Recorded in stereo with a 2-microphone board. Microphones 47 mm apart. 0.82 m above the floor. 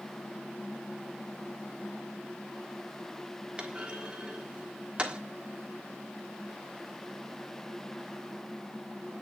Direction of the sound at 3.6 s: 25° right (ahead or behind).